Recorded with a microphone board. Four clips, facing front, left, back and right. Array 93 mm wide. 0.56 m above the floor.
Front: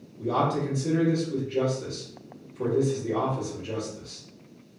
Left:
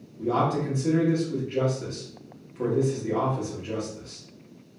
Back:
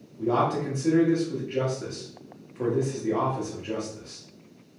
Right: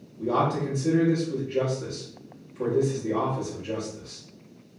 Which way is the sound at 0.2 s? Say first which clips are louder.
Even, back 1 dB; 155° left.